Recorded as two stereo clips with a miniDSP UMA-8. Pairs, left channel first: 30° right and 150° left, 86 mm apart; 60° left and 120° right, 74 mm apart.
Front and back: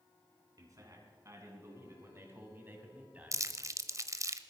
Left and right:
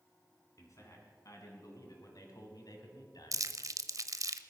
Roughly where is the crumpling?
Behind.